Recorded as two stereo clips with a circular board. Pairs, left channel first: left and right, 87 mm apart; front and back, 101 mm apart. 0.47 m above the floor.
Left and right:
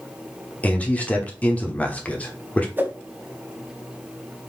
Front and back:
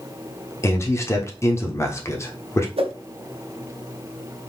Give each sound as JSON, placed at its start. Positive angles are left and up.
{"t": 0.6, "sound": "a man speaking", "azimuth_deg": 30, "distance_m": 1.0}
{"t": 2.8, "sound": "a whoosh", "azimuth_deg": -155, "distance_m": 0.8}